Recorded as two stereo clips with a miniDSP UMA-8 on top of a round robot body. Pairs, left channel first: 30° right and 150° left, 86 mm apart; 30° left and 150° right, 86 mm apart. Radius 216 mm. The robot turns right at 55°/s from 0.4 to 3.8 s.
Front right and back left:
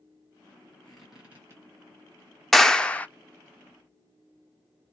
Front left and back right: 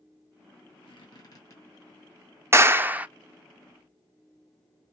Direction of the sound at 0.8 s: 50° left.